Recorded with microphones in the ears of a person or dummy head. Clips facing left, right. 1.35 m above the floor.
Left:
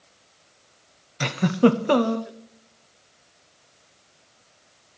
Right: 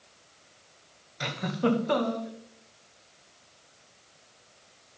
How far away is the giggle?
About 0.8 m.